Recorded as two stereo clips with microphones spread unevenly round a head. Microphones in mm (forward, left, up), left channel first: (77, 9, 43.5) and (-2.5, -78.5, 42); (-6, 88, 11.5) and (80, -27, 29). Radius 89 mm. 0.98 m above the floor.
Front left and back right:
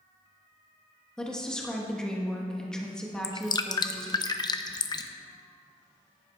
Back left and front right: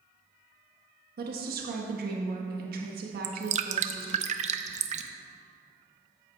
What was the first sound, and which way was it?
A woman speaking, 35° right.